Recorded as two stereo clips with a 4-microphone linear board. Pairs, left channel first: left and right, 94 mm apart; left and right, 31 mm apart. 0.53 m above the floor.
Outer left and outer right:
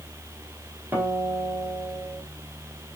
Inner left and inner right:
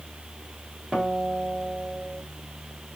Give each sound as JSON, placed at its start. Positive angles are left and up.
{"t": 0.9, "sound": "a guitar", "side_deg": -20, "distance_m": 3.5}